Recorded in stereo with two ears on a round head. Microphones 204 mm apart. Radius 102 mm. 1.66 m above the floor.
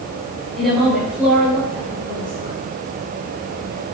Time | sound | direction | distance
0.6 | a woman speaking | centre (ahead or behind) | 6.5 m